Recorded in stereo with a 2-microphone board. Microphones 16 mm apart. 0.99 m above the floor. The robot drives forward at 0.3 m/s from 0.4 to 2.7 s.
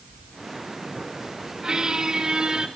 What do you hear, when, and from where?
1.6 s a squeak: 40° right (ahead or behind), 4.5 m